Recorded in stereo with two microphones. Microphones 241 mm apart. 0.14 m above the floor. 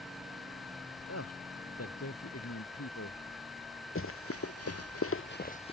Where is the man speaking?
85° left.